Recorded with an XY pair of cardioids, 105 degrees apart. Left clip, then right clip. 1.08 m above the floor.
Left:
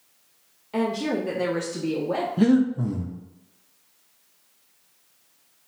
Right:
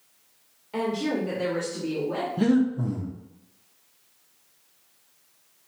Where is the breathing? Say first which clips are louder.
Left 2 dB; 15° left, 0.7 m.